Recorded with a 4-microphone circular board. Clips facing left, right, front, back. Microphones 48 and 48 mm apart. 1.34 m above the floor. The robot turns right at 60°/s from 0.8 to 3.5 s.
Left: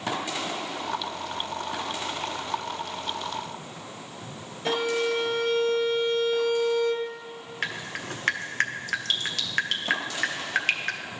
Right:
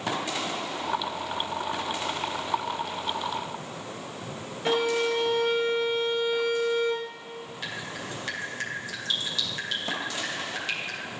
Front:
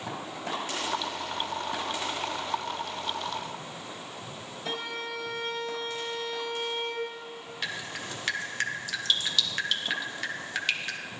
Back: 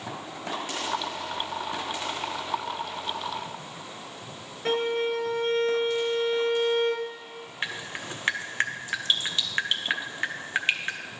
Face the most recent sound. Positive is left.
turn(degrees=120)